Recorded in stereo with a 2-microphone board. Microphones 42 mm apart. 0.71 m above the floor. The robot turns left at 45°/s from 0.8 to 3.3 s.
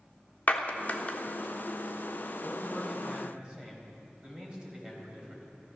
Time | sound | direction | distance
0.5 | a clap | 45° left (ahead or behind) | 1.1 m
2.4 | a man speaking | 15° left | 4 m